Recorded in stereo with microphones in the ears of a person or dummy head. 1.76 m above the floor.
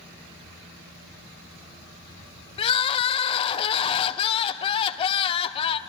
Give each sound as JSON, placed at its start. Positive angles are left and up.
{"t": 2.6, "sound": "crying", "side_deg": 30, "distance_m": 0.6}